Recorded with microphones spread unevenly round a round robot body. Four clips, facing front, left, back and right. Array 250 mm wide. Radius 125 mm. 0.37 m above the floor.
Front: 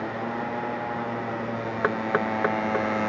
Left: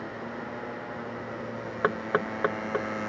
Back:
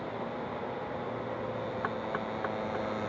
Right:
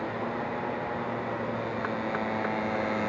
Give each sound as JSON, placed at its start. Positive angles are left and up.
{"t": 0.0, "sound": "a motorcycle", "azimuth_deg": -15}
{"t": 1.8, "sound": "knocking", "azimuth_deg": 40}